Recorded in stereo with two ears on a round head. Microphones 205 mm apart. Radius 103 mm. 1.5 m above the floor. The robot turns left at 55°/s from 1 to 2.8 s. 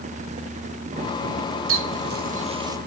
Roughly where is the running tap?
Right.